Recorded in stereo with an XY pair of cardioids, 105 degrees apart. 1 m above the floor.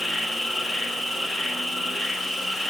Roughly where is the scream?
No scream in this recording.